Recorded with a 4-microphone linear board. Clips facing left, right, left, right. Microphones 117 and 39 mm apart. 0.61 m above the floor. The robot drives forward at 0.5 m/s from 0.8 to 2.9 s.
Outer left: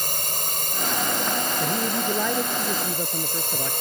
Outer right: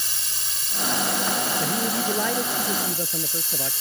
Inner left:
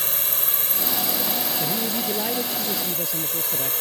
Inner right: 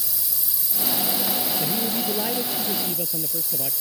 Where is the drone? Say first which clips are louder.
Outer left 9 dB, inner left 7 dB; 55° left (ahead or behind).